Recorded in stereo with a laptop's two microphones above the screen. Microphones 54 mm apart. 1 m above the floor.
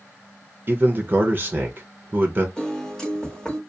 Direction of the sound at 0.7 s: 35° right (ahead or behind).